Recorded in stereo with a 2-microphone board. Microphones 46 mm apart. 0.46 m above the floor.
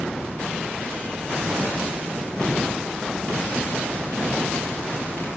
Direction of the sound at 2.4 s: 20° left (ahead or behind).